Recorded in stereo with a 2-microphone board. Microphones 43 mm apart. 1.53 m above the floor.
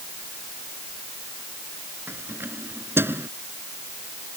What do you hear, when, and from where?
2.1 s keys jangling: 55° right (ahead or behind)